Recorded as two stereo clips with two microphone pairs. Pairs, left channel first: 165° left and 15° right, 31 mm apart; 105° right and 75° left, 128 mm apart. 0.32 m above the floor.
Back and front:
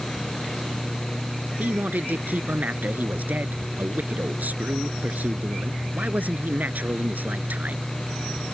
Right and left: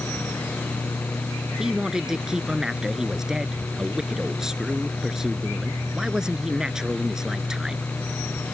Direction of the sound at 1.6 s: 10° right.